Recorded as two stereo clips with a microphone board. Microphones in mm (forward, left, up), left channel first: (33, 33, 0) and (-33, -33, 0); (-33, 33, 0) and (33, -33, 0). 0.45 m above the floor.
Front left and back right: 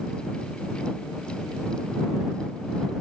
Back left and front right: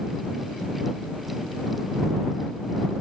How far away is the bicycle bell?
I don't hear a bicycle bell.